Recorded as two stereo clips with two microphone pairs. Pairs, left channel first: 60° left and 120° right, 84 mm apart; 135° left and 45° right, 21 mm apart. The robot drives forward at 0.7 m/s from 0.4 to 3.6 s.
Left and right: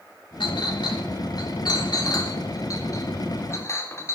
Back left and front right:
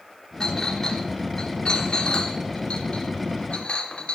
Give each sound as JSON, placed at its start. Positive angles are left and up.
{"t": 0.4, "sound": "a clink", "azimuth_deg": 75, "distance_m": 3.0}